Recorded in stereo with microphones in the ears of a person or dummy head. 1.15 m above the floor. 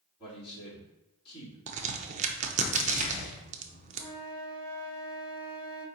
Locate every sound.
0.2 s a man speaking: 30° left (ahead or behind), 2.5 m
1.7 s a crack: 40° right (ahead or behind), 0.6 m
4.0 s a flute: 15° left (ahead or behind), 1.2 m